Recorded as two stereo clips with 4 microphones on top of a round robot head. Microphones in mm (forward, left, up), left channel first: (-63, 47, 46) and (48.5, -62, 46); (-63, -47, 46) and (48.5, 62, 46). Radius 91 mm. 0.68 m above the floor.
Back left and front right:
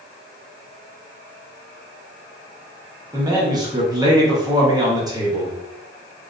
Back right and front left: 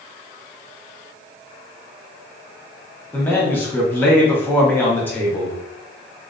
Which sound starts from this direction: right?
A man speaking, at 3.1 s.